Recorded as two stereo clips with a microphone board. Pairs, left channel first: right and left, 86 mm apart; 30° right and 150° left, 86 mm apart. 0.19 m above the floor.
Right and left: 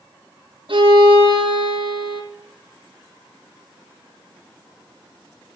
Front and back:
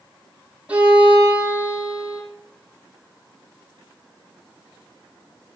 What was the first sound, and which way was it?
A violin, 75° left.